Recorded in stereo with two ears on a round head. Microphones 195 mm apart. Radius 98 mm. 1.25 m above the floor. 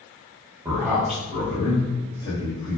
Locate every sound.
0.7 s a man speaking: 20° right (ahead or behind), 0.7 m; by 2.8 s 75° left (ahead or behind), 1.4 m